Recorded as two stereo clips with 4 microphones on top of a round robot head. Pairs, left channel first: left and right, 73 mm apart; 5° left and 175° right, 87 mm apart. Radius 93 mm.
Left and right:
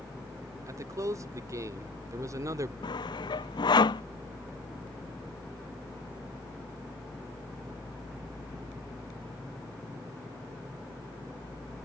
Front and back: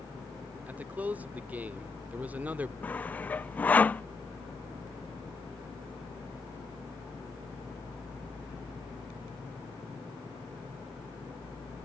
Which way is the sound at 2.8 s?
75° left.